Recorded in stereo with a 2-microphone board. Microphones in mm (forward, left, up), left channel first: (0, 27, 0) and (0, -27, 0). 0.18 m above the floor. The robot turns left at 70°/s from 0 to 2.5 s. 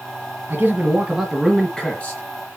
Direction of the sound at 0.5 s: 100° right.